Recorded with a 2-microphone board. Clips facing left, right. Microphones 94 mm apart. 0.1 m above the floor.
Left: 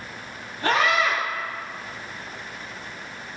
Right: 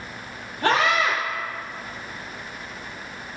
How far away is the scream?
About 2.5 m.